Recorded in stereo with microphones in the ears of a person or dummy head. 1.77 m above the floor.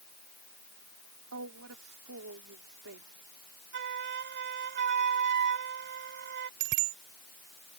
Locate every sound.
1.3 s a woman speaking: 75° right (ahead or behind)
3.7 s a flute: 55° right (ahead or behind)
6.6 s a bicycle bell: 65° right (ahead or behind)